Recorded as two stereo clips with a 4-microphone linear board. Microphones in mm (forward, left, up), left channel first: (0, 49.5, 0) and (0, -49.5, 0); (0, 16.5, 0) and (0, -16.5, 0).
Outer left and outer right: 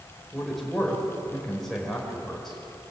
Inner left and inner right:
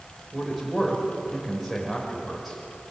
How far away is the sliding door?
No sliding door in this recording.